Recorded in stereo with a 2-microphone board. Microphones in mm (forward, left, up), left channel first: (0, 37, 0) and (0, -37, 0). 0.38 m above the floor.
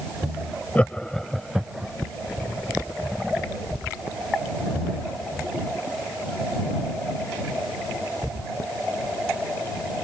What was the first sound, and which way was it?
Laughter, 20° left (ahead or behind).